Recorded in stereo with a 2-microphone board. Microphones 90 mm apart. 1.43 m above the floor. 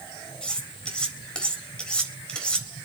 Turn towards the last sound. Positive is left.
turn(degrees=10)  # may be behind; listen again after turning